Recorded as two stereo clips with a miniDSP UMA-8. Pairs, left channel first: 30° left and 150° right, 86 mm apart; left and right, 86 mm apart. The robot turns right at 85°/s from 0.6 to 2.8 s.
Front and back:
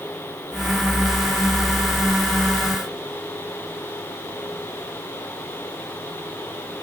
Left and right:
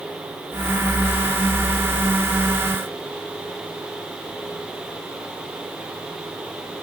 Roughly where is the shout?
No shout in this recording.